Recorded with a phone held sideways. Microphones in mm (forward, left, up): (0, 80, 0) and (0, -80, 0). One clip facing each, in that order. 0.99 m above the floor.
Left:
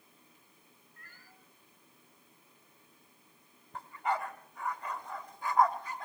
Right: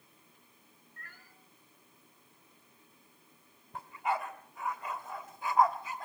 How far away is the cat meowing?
About 4 m.